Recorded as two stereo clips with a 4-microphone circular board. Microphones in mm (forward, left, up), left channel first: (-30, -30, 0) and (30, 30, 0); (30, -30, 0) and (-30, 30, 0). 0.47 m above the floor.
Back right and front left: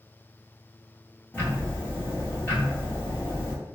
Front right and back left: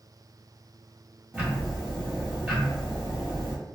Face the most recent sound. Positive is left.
turn(degrees=-175)